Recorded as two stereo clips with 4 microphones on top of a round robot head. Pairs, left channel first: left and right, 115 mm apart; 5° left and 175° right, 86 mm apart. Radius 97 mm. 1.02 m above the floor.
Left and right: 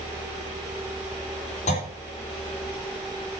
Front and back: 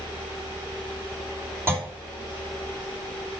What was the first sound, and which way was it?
A clunk, 120° left.